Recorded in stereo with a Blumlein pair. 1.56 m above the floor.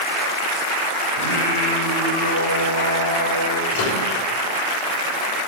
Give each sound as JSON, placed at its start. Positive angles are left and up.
{"t": 1.1, "sound": "singing", "azimuth_deg": 70, "distance_m": 7.0}
{"t": 3.7, "sound": "a microwave", "azimuth_deg": 55, "distance_m": 6.0}